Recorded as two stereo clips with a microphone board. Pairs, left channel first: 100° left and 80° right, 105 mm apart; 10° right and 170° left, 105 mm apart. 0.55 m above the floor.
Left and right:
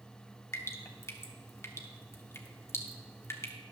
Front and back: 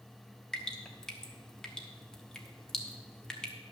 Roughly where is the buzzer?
No buzzer in this recording.